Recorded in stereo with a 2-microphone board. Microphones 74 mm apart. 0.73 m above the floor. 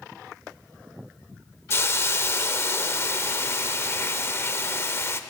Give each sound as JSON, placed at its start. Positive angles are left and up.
{"t": 1.7, "sound": "a hiss", "side_deg": 35, "distance_m": 0.5}